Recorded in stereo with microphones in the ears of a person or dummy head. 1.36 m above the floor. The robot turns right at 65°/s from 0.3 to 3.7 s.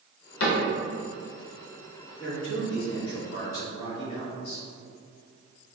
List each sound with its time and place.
0.4 s a cupboard door: 75° left (ahead or behind), 0.9 m; by 0.7 s 60° left (ahead or behind), 0.9 m
2.2 s a man speaking: 25° left, 1.9 m; by 4.6 s 125° left, 1.9 m